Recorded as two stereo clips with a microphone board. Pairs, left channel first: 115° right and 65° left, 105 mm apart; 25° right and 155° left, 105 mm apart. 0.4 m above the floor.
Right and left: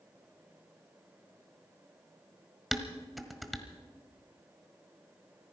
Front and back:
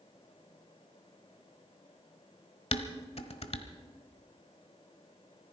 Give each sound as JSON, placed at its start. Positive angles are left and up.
{"t": 2.7, "sound": "dishes clattering", "azimuth_deg": -20, "distance_m": 1.2}